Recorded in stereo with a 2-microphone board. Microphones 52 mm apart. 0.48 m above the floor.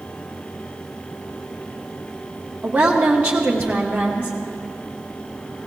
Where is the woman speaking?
25° right (ahead or behind), 1.1 m.